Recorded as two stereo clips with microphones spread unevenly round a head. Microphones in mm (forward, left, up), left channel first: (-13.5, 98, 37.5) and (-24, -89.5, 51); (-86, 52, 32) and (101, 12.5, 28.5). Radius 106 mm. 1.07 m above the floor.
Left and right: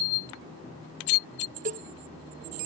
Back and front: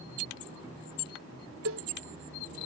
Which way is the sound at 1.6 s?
40° right.